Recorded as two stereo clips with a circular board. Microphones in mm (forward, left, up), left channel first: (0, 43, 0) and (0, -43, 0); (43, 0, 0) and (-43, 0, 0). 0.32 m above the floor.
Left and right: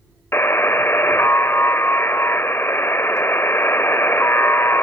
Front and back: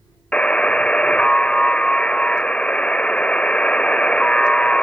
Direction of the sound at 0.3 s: 65° left.